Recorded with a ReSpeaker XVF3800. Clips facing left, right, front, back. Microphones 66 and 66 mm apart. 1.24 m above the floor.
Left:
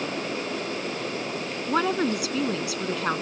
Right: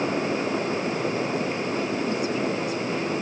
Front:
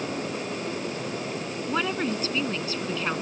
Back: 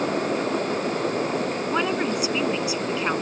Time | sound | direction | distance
1.7 | a woman speaking | 100° left | ?